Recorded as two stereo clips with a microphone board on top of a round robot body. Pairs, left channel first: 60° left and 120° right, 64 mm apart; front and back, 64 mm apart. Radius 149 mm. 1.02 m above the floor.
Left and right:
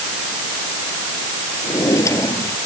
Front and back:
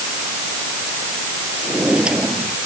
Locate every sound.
1.6 s a drawer: 100° left